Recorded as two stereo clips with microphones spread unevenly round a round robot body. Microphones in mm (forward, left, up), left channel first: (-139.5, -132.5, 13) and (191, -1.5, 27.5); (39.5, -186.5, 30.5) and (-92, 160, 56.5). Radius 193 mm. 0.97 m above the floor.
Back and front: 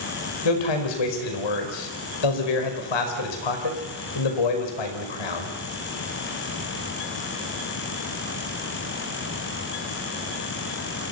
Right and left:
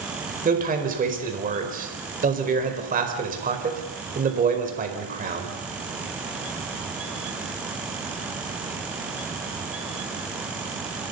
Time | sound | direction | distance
0.5 | a man speaking | straight behind | 5 m